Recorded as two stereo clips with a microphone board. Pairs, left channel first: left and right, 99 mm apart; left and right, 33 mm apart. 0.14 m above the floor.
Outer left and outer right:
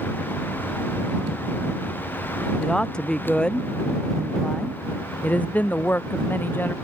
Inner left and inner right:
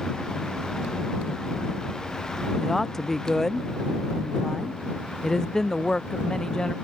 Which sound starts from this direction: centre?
A woman speaking, at 2.6 s.